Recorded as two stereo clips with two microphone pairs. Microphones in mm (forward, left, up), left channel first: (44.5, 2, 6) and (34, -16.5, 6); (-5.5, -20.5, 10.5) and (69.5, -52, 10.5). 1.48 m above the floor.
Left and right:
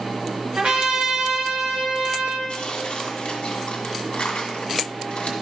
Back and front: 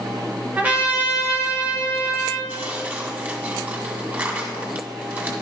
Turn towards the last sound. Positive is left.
turn(degrees=35)